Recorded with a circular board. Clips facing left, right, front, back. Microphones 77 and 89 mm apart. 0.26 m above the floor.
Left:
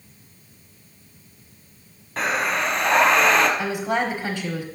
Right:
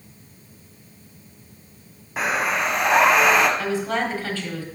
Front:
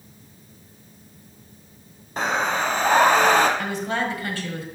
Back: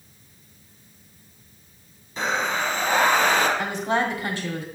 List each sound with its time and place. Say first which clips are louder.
2.2 s breathing: even, front 2 dB; 10° right, 1.0 m
3.6 s a woman speaking: even, back 2 dB; 140° left, 1.2 m